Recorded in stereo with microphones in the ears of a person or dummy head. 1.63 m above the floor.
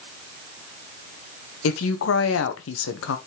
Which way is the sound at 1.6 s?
85° left.